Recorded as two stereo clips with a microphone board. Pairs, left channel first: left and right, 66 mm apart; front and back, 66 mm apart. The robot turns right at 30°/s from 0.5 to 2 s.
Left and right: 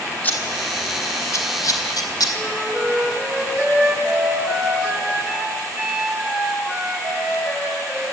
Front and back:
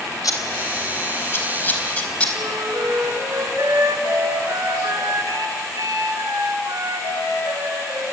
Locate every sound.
0.2 s scissors: 25° left, 4 m; by 2.2 s 70° left, 4 m
2.4 s a flute: straight behind, 6 m